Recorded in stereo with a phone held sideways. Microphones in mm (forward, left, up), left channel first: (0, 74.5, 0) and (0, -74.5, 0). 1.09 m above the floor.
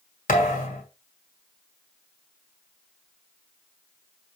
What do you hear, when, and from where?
0.3 s a thud: 60° left (ahead or behind), 2 m